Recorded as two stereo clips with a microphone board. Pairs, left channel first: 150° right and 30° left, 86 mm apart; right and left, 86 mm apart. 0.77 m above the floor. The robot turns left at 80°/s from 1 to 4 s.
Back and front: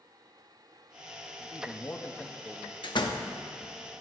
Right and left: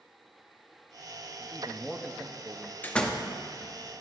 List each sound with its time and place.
1.4 s a man speaking: 145° right, 0.6 m; by 2.7 s 110° left, 0.6 m
2.8 s a door slam: 155° right, 0.7 m; by 3.3 s 170° left, 0.7 m